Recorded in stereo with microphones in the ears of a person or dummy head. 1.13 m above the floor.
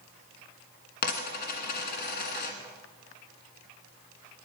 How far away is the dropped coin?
About 1.5 m.